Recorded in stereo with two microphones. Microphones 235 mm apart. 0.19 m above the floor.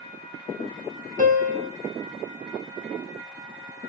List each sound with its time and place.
1.2 s a piano: 35° right (ahead or behind), 0.5 m